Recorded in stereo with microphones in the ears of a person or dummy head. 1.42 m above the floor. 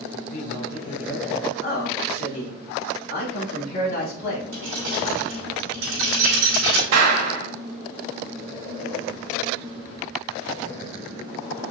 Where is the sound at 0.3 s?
40° left (ahead or behind), 3 m.